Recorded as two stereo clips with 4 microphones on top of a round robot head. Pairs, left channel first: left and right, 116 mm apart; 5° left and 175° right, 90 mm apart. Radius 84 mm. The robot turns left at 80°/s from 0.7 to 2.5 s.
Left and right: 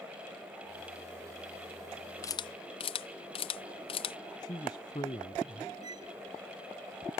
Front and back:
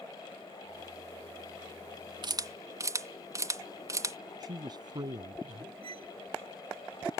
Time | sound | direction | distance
2.2 | a camera shutter | 160° left | ?
4.4 | a man speaking | 150° left | ?
5.8 | a violin | 150° right | ?